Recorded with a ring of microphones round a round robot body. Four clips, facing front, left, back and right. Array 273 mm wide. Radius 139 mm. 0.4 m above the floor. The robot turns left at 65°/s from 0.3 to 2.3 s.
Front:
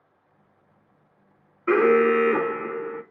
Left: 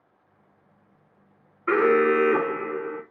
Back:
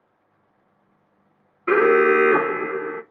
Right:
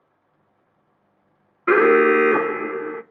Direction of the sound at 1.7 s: 100° right.